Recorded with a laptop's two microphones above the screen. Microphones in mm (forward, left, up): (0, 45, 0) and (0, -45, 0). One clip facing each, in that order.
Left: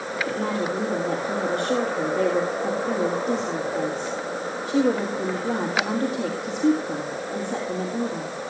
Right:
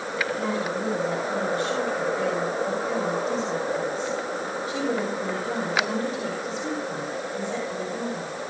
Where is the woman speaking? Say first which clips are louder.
Left 3 dB; 55° left (ahead or behind), 3.5 m.